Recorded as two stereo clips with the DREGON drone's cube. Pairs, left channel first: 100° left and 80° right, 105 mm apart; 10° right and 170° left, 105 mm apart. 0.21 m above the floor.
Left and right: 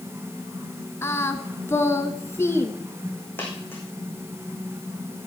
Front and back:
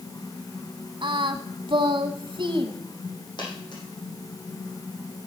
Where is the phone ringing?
I don't hear a phone ringing.